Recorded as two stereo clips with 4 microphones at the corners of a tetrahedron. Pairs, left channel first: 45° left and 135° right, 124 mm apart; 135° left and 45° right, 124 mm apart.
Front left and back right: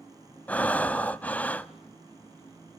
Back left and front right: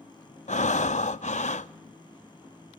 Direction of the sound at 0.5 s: 120° left.